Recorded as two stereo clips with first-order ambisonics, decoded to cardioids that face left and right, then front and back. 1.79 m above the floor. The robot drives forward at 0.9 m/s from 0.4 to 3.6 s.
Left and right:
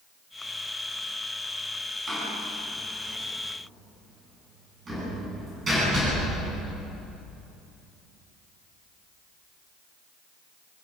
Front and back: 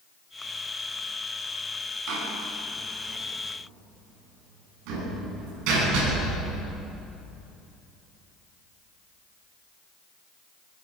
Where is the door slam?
155° right, 9.5 m; by 6.5 s 160° right, 11 m.